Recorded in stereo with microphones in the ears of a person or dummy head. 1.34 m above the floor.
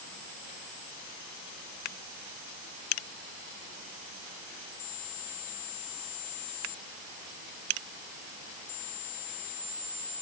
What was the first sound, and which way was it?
Only background noise.